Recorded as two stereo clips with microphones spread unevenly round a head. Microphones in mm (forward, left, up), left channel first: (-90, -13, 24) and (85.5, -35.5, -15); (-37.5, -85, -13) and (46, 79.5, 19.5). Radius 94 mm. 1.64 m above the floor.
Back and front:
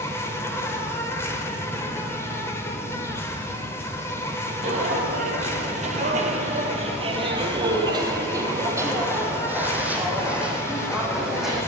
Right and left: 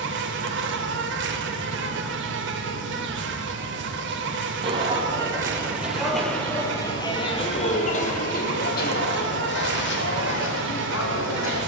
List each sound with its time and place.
0.0 s an insect: 90° left, 1.3 m
4.6 s footsteps: 40° left, 2 m; by 11.6 s 100° right, 3.5 m